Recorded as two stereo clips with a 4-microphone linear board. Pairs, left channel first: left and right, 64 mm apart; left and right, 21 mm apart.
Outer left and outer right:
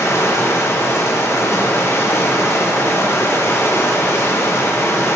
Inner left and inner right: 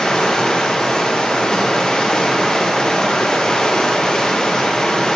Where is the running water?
45° left (ahead or behind), 0.7 m.